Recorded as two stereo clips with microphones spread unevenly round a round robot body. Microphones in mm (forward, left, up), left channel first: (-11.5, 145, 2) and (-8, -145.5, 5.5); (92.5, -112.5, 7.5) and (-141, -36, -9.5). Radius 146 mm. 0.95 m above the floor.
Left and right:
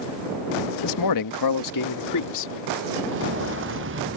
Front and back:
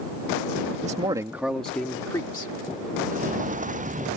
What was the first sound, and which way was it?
A man speaking, 100° left.